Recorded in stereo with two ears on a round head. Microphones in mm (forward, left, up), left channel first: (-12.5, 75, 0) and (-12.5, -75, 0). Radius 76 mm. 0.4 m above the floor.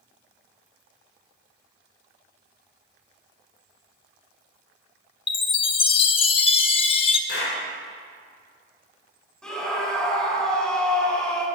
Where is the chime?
35° left (ahead or behind), 0.6 m.